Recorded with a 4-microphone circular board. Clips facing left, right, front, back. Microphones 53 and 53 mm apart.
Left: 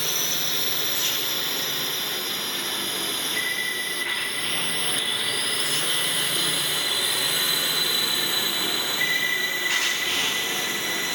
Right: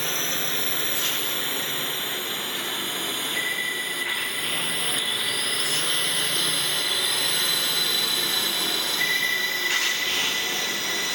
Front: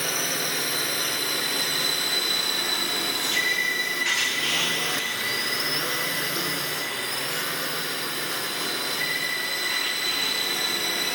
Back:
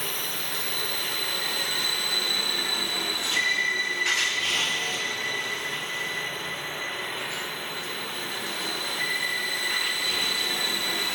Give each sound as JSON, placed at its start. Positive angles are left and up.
{"t": 0.0, "sound": "a drone", "azimuth_deg": -25}